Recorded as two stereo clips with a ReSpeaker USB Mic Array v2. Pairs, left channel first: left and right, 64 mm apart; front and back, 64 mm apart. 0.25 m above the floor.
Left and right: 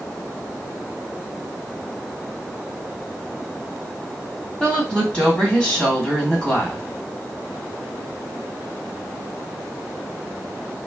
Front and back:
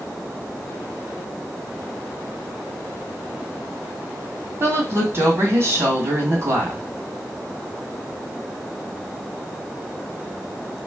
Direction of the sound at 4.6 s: 155° left.